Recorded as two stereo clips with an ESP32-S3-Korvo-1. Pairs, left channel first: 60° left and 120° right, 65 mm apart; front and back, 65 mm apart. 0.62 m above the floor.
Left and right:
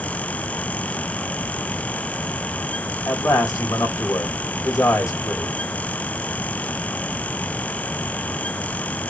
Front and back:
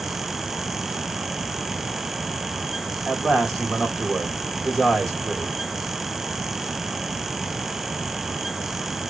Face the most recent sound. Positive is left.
turn(degrees=85)